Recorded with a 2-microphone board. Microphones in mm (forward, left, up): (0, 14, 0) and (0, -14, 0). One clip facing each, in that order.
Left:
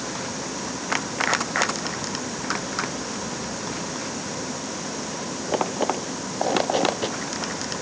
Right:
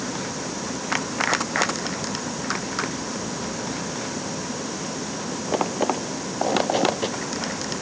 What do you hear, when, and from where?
Only background noise.